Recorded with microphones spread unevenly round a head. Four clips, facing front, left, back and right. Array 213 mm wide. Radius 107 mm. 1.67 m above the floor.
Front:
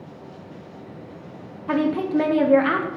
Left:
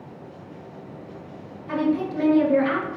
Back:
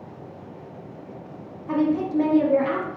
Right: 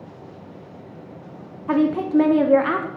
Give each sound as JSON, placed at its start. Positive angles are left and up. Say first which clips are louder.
{"t": 1.7, "sound": "a woman speaking", "louder": "right 5 dB, front 1 dB", "azimuth_deg": -55, "distance_m": 0.5}